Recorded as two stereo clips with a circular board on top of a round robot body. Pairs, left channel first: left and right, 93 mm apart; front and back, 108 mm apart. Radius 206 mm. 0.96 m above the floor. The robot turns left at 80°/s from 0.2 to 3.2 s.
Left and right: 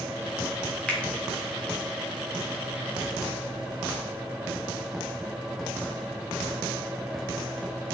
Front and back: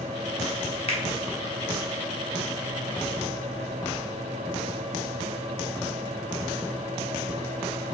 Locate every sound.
0.9 s a finger snap: 10° left, 1.1 m; by 1.0 s straight ahead, 1.1 m